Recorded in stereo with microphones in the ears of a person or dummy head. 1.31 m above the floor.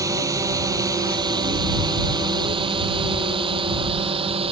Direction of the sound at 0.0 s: 20° right (ahead or behind).